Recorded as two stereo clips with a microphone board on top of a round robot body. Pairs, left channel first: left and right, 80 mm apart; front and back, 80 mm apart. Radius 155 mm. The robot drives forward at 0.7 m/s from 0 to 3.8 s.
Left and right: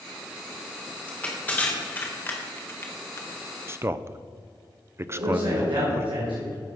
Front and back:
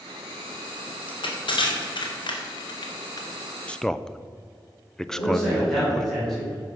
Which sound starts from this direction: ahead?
Crushing, at 1.1 s.